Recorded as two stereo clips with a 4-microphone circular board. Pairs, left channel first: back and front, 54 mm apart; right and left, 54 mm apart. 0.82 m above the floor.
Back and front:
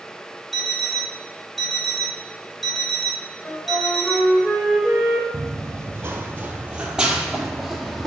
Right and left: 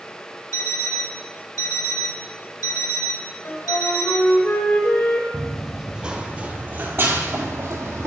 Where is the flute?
110° right, 2 m.